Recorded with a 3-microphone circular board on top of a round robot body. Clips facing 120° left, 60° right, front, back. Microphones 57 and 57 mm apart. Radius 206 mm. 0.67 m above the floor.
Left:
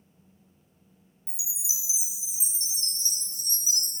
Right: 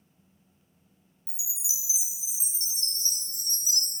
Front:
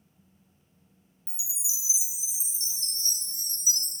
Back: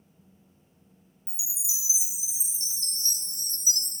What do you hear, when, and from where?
1.3 s a chime: 60° left, 1.4 m